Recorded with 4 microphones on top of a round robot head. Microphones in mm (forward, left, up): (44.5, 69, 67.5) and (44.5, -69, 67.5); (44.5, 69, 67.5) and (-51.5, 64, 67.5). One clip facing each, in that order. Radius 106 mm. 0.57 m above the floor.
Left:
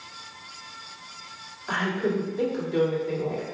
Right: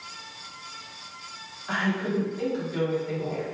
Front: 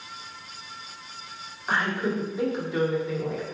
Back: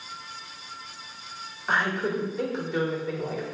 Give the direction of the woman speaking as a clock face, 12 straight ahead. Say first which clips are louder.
Left 1 dB, even; 9 o'clock.